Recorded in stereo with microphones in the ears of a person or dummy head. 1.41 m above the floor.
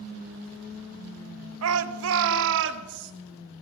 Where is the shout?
75° right (ahead or behind), 0.7 m; by 3.1 s 60° right (ahead or behind), 1.3 m.